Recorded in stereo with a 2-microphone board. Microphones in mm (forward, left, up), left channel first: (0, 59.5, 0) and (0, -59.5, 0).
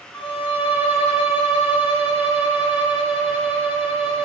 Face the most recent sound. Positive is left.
turn(degrees=-20)  # may be behind; listen again after turning